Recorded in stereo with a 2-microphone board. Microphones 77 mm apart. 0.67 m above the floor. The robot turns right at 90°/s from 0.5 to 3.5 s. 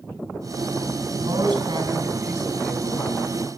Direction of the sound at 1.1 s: 135° right.